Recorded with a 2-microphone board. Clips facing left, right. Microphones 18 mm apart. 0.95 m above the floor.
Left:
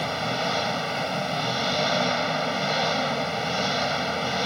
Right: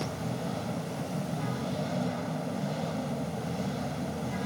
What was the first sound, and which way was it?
An engine running, 70° left (ahead or behind).